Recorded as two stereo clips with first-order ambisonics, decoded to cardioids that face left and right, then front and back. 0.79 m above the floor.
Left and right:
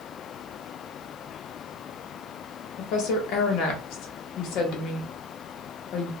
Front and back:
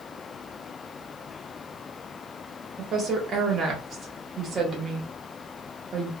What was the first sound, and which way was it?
A woman speaking, 115° left.